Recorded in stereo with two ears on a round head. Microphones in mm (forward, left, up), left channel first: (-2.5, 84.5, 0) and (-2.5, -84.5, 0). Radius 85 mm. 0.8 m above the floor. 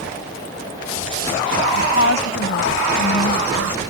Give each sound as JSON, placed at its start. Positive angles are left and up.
{"t": 1.8, "sound": "a woman speaking", "side_deg": 70}